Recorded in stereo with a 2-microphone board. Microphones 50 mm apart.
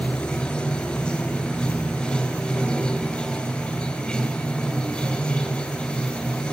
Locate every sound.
0.0 s running water: 20° left (ahead or behind), 5 m